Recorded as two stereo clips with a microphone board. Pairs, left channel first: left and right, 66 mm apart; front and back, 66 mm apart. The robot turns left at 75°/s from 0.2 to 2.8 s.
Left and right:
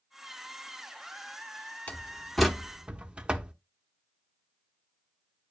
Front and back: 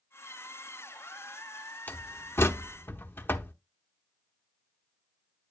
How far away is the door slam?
About 0.9 m.